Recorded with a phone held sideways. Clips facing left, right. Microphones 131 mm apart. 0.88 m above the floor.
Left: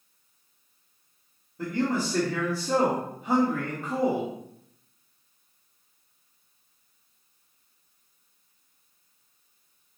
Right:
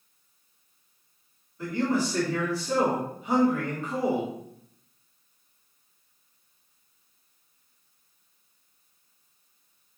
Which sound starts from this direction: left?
A man speaking, at 1.6 s.